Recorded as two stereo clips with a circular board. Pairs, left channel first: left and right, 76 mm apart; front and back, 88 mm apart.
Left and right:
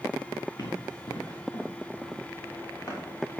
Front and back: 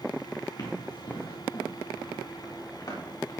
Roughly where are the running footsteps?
Ahead left.